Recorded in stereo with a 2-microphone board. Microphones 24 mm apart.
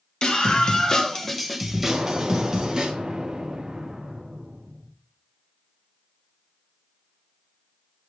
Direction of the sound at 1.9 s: 30° right (ahead or behind).